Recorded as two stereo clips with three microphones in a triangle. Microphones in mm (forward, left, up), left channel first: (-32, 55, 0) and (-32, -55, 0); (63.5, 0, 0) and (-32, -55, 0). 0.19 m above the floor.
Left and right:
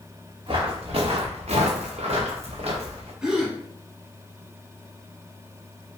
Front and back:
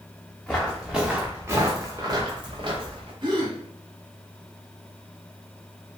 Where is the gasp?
170° right, 0.8 m.